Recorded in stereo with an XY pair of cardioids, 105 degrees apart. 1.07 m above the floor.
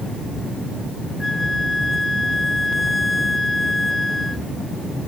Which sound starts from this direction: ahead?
A flute, at 1.2 s.